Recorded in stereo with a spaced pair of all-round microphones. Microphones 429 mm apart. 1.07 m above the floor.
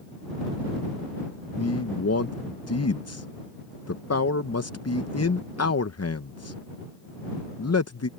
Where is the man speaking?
35° left (ahead or behind).